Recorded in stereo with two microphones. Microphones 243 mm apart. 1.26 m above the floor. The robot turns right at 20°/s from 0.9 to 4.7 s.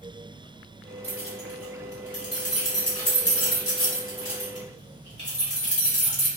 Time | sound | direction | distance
1.0 | keys jangling | 60° left (ahead or behind) | 1.2 m